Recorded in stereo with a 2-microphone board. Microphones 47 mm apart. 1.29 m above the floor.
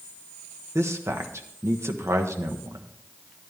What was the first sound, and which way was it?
A man speaking, 70° right (ahead or behind).